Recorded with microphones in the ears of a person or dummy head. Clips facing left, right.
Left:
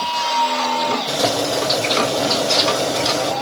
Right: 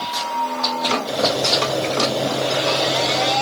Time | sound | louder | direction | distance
1.1 | boiling | even | 5° right (ahead or behind) | 6.5 m